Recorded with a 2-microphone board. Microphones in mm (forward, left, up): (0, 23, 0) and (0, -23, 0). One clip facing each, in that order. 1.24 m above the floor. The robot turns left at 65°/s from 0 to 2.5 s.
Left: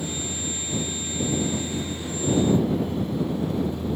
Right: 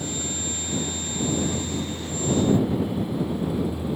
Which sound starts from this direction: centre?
A vehicle, at 0.0 s.